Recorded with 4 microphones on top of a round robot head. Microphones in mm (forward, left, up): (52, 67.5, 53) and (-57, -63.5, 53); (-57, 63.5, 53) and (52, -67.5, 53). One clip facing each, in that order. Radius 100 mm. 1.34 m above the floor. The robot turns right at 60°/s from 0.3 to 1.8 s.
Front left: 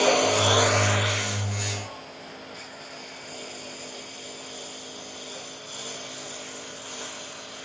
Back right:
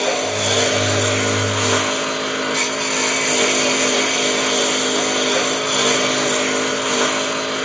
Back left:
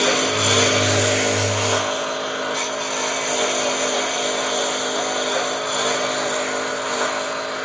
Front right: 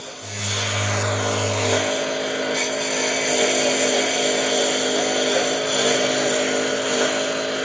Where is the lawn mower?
145° left; by 7.7 s 110° right.